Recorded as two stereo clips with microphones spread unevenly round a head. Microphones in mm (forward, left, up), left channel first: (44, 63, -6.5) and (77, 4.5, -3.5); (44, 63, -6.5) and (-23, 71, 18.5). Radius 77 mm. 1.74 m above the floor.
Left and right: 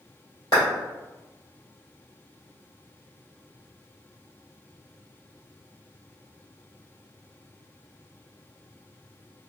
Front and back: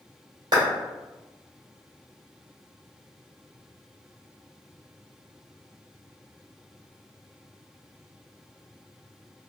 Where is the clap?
175° right, 1.8 m.